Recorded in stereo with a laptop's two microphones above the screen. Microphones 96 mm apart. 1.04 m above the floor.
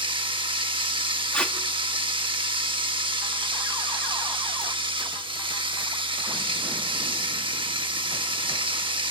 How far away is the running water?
About 1.3 m.